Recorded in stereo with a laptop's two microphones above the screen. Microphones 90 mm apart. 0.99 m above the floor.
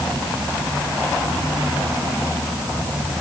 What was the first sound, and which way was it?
Only background noise.